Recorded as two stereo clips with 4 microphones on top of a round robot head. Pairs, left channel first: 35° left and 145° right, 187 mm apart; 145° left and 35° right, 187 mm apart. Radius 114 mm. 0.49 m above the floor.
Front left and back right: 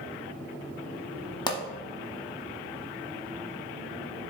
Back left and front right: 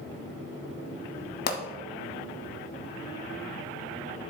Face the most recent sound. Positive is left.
turn(degrees=105)